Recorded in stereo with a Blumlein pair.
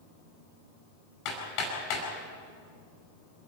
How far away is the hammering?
About 6 m.